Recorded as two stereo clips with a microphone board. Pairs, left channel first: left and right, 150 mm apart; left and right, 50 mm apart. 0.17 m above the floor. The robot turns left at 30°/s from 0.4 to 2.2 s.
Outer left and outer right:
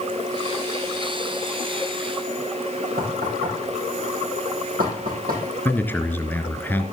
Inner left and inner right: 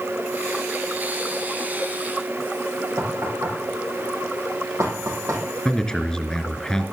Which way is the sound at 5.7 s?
15° left (ahead or behind).